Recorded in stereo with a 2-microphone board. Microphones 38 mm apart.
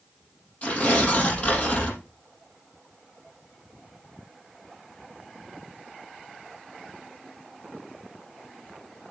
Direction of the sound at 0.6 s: 35° left (ahead or behind).